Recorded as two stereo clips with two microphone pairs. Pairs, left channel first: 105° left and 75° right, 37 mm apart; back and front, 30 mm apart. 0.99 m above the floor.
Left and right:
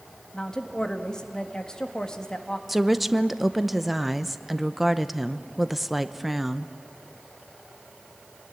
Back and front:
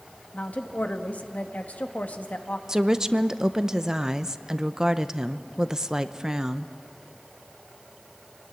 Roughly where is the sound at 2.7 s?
Ahead.